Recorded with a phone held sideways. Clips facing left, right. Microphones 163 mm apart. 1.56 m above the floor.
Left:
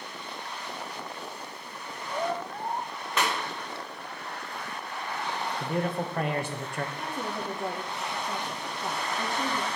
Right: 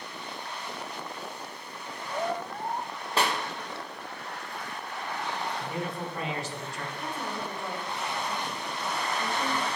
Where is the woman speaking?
45° left (ahead or behind), 1.2 m.